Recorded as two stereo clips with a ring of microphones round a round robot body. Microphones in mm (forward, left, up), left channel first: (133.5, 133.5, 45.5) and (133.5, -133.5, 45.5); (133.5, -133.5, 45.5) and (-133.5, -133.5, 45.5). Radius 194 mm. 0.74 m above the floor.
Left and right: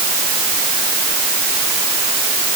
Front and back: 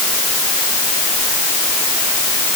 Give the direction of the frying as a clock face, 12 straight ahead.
I don't hear frying.